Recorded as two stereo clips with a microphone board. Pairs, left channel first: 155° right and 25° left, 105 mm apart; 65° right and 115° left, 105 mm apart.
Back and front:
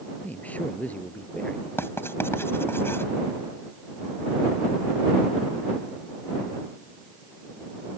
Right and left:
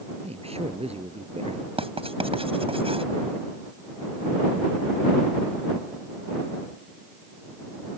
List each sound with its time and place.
0.2 s a man speaking: 125° left
1.8 s writing: 135° left